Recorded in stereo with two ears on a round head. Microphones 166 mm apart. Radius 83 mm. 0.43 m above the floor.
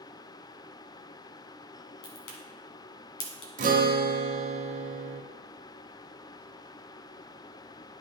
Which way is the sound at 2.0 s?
75° left (ahead or behind).